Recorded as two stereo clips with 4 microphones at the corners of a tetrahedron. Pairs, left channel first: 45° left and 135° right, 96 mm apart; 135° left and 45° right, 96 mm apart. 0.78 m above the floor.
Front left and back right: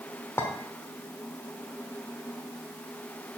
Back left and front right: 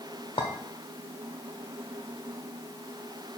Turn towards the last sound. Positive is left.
turn(degrees=110)